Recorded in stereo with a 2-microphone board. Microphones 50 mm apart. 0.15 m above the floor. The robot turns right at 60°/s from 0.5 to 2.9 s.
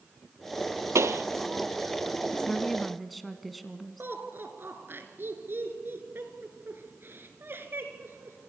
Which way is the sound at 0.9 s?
85° right.